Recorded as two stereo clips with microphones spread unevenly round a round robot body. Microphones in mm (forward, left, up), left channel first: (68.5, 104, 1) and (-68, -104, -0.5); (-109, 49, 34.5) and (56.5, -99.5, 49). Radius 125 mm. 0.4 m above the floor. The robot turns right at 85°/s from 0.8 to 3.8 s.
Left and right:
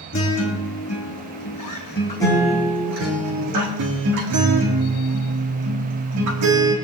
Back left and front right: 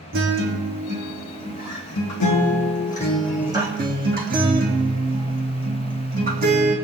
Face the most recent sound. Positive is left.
turn(degrees=-95)